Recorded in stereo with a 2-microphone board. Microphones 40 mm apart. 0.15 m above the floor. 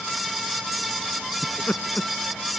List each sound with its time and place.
1.4 s laughter: 35° left (ahead or behind)